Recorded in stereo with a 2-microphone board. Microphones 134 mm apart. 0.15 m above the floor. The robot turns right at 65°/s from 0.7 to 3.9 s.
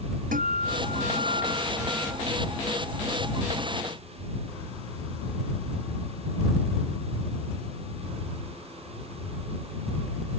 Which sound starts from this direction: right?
A guitar, at 0.3 s.